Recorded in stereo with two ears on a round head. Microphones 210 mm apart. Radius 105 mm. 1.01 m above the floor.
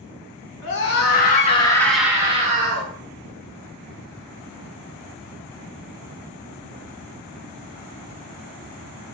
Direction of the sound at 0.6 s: 55° left (ahead or behind).